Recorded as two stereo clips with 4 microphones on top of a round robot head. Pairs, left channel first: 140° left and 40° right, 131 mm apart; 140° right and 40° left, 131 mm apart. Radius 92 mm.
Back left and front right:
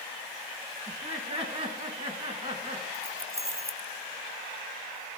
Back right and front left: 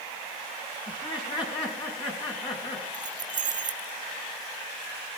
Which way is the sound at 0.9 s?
80° right.